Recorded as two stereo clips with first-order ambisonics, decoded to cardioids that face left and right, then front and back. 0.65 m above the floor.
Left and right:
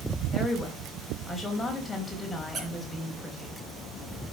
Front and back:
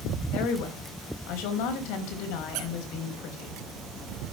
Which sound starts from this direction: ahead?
A woman speaking, at 0.3 s.